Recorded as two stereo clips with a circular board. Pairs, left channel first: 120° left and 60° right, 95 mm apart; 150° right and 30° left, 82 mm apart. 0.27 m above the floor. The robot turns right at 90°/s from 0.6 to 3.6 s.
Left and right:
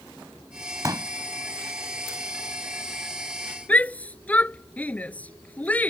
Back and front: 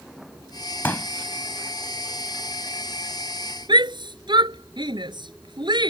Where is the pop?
95° right; by 1.1 s 75° right.